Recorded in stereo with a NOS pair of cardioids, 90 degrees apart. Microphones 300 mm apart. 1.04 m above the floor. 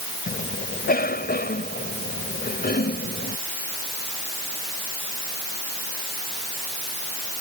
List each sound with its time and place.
0.3 s a cough: 30° left